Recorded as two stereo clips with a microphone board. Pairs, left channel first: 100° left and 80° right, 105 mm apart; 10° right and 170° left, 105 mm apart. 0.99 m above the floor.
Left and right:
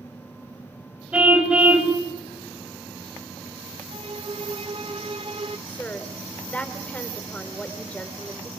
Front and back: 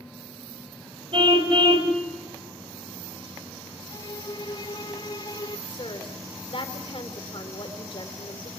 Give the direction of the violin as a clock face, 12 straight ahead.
2 o'clock.